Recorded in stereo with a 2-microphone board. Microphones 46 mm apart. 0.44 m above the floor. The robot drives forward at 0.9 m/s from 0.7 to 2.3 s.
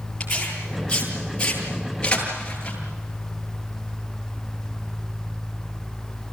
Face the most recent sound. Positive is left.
turn(degrees=20)  # may be behind; listen again after turning